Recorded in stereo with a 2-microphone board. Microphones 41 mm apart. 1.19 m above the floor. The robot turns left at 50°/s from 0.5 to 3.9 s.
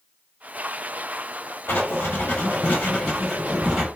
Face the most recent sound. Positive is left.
turn(degrees=-20)